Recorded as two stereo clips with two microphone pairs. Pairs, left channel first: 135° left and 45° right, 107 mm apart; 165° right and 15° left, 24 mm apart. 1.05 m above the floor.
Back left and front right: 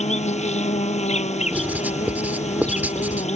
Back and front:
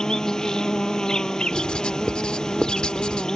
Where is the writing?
120° right.